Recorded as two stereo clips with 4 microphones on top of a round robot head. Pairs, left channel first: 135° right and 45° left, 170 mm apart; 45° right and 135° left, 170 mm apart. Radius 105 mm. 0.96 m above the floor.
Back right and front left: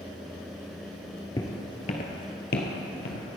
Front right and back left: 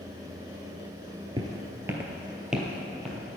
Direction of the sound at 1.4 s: Straight behind.